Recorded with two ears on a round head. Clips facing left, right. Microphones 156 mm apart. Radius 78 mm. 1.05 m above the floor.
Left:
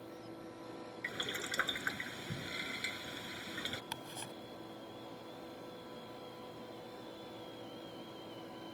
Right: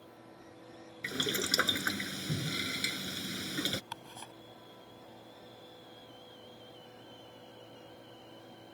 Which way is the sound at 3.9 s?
15° left (ahead or behind).